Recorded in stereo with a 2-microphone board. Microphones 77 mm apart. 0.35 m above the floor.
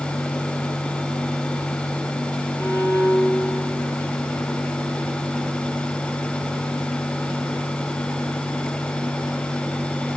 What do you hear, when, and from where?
2.6 s a violin: 30° left (ahead or behind), 5 m